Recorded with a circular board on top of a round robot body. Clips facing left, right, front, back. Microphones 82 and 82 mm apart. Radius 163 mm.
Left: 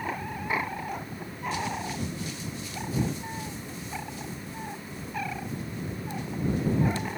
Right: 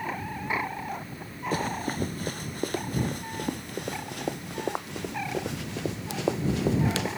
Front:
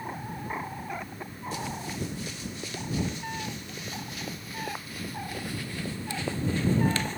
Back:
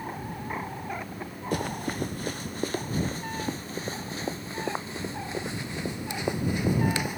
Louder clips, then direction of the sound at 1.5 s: Right 4 dB, back 6 dB; 140° right.